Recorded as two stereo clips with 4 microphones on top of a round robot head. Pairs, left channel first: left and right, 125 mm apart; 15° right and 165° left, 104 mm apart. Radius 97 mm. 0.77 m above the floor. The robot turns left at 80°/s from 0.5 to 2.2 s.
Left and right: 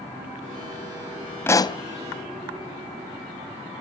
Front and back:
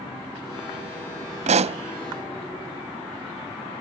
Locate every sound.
1.5 s a pop: 165° left, 0.6 m; by 1.8 s 135° left, 0.6 m